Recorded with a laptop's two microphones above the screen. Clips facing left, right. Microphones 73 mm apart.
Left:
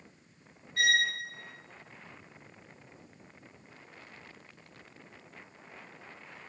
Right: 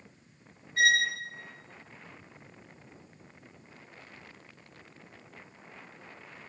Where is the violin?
30° right (ahead or behind), 1.4 m.